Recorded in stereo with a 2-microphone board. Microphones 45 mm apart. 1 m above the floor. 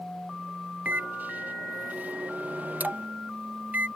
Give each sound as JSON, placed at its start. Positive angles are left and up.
{"t": 0.8, "sound": "a microwave", "side_deg": -35}